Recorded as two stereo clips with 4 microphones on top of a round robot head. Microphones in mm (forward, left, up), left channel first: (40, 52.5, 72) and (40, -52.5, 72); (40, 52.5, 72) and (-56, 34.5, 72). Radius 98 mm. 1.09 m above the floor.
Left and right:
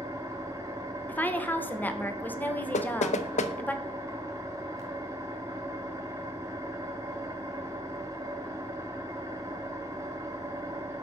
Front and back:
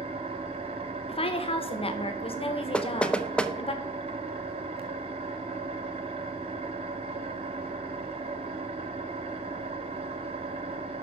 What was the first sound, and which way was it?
An engine running, 160° right.